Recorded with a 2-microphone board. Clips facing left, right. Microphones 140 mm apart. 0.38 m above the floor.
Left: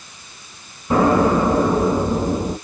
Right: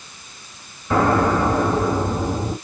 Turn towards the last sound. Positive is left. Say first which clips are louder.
# left 2 dB
turn(degrees=25)  # may be behind; listen again after turning